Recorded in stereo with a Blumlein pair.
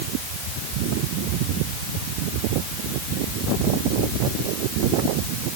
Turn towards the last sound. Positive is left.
No sound to turn to.